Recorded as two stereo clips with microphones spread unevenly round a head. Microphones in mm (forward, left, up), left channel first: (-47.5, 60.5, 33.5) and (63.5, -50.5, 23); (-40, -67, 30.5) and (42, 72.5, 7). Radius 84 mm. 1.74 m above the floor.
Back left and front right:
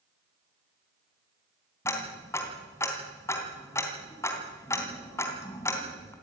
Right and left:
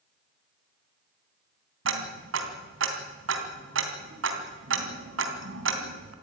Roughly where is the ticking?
Ahead left.